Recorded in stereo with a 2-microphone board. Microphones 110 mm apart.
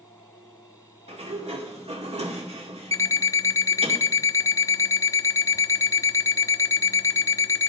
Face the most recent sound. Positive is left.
turn(degrees=30)  # may be behind; listen again after turning